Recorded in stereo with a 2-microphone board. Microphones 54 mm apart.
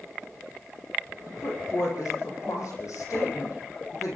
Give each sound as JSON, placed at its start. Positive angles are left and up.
{"t": 1.3, "sound": "a woman speaking", "side_deg": 70, "distance_m": 8.0}